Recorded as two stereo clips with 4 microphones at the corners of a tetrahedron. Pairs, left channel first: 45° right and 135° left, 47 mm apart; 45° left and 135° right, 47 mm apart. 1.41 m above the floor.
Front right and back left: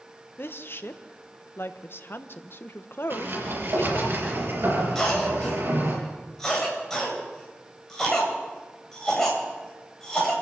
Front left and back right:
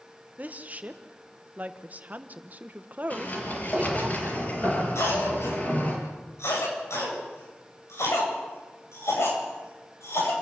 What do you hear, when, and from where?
0.4 s a woman speaking: 80° right, 1.1 m
3.1 s a sliding door: 100° left, 5.5 m
5.0 s a cough: 35° left, 8.5 m